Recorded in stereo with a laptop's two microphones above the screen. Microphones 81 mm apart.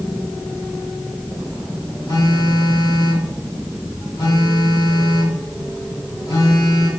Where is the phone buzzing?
80° left, 2.5 m.